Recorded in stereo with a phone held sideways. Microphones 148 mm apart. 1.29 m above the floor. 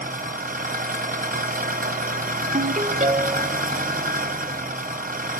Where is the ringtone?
55° right (ahead or behind), 0.9 m.